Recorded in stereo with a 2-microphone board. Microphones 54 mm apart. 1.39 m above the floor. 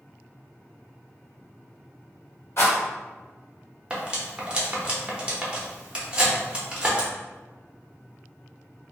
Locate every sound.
2.6 s a rattle: 50° left (ahead or behind), 1.6 m
3.9 s cutlery clinking: 20° right (ahead or behind), 0.7 m